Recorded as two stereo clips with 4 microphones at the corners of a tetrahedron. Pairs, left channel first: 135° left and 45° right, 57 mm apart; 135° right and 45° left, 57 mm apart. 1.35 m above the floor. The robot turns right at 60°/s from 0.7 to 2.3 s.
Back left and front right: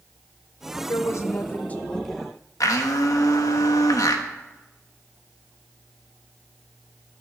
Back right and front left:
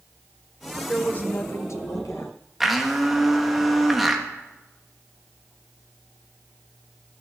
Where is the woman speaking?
150° left, 1.2 m; by 2.3 s 125° right, 1.2 m.